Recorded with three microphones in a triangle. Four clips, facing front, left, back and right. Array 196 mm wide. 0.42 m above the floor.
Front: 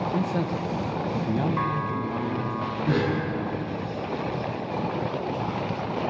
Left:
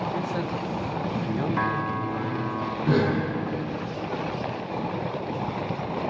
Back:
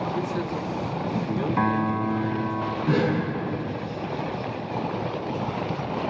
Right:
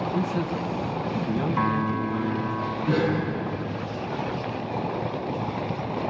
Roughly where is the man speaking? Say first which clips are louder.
Right 2 dB, front 1 dB; ahead.